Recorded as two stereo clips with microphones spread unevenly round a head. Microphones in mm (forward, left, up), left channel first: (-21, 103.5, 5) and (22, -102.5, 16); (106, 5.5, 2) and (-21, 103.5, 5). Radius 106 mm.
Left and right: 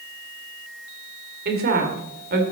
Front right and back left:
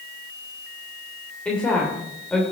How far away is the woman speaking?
About 2.5 m.